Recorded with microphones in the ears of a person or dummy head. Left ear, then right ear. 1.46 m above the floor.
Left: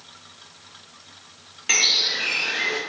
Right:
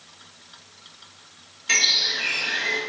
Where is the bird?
25° left (ahead or behind), 1.3 m.